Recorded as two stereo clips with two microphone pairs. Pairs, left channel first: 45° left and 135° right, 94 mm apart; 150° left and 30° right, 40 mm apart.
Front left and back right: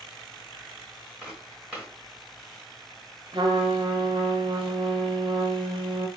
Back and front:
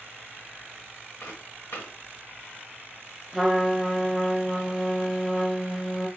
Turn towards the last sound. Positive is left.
turn(degrees=-120)